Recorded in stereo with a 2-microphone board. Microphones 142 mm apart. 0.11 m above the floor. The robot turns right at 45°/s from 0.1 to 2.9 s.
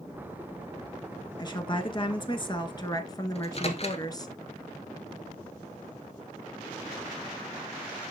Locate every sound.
1.4 s a woman speaking: 60° left, 1.5 m; by 4.3 s 130° left, 1.5 m
3.4 s a microwave: 45° left (ahead or behind), 1.4 m